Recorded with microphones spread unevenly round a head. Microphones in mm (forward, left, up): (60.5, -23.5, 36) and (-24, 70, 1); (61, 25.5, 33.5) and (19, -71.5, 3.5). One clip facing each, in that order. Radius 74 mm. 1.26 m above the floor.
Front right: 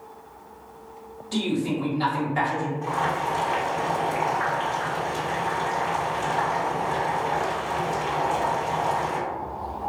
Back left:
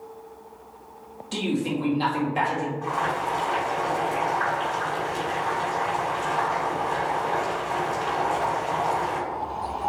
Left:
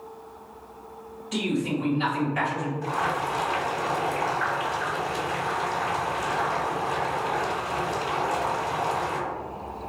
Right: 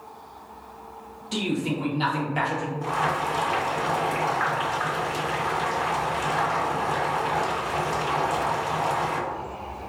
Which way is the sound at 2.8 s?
110° right.